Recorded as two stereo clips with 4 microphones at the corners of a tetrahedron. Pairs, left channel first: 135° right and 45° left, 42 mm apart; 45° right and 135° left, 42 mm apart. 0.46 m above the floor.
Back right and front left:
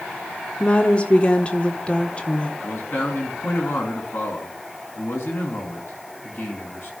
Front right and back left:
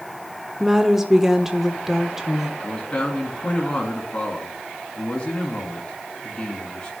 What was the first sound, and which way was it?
A woman speaking, 150° right.